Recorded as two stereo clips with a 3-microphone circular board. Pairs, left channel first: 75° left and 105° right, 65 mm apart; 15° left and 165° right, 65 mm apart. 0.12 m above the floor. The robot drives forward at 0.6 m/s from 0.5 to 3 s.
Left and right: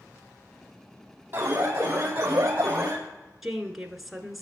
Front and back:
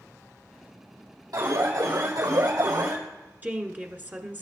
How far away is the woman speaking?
About 1.1 m.